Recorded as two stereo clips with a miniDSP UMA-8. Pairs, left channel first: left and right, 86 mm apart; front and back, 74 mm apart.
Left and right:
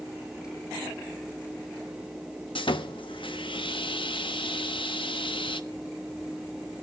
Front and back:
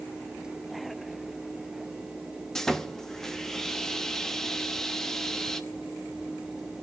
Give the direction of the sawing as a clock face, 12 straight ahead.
9 o'clock.